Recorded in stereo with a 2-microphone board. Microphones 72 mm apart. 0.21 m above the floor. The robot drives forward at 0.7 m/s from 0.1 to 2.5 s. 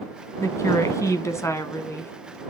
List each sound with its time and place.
0.4 s a woman speaking: 45° left (ahead or behind), 1.7 m; by 2.1 s 40° left (ahead or behind), 2.0 m